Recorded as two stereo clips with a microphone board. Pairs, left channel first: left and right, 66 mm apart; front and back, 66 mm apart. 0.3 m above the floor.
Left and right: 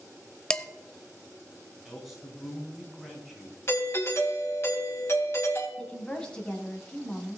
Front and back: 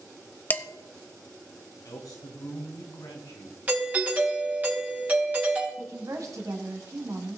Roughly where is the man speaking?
Ahead.